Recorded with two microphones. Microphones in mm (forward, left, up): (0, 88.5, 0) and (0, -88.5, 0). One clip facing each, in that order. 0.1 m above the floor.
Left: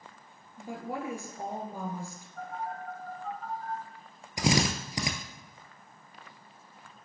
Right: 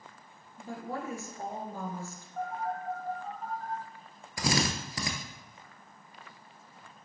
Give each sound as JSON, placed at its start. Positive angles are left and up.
{"t": 0.6, "sound": "a woman speaking", "side_deg": 15, "distance_m": 1.5}
{"t": 2.4, "sound": "a phone buzzing", "side_deg": -55, "distance_m": 2.0}
{"t": 4.4, "sound": "a drill", "side_deg": 20, "distance_m": 0.8}